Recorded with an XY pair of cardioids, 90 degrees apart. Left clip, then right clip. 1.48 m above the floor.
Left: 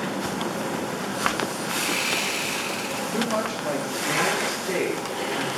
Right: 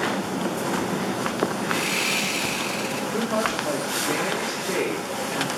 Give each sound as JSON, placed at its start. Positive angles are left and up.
{"t": 1.7, "sound": "sawing", "azimuth_deg": -5, "distance_m": 6.0}
{"t": 3.1, "sound": "a woman speaking", "azimuth_deg": 30, "distance_m": 8.5}